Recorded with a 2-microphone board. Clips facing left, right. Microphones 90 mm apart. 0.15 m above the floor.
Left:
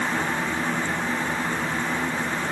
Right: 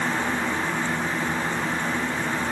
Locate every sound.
Only background noise.